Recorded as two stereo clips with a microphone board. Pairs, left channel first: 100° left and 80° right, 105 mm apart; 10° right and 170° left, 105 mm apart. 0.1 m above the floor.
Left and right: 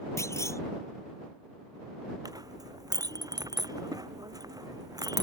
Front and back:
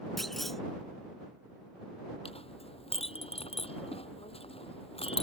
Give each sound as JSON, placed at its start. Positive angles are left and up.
{"t": 0.2, "sound": "a clunk", "azimuth_deg": 75}
{"t": 2.2, "sound": "a clink", "azimuth_deg": -25}